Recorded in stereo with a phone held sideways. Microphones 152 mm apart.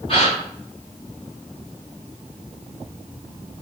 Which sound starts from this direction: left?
A gasp, at 0.1 s.